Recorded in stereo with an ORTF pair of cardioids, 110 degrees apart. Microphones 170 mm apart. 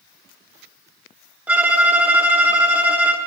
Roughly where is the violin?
Ahead.